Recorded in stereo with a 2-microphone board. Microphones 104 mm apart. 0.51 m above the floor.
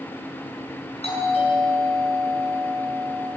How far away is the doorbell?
About 7 m.